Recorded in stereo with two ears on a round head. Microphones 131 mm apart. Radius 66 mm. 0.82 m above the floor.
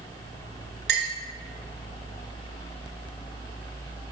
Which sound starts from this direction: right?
A clink, at 0.9 s.